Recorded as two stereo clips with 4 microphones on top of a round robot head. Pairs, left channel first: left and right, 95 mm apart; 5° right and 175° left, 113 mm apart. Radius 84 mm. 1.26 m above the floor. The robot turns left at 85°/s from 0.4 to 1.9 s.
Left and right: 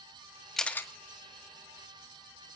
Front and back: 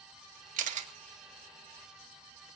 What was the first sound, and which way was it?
A camera shutter, 175° left.